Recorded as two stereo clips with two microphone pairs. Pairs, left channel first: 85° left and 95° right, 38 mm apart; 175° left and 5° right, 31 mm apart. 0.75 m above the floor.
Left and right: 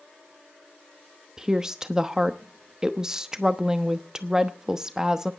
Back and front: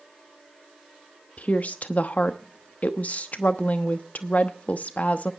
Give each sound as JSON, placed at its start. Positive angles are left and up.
{"t": 1.4, "sound": "a woman speaking", "azimuth_deg": -165, "distance_m": 0.9}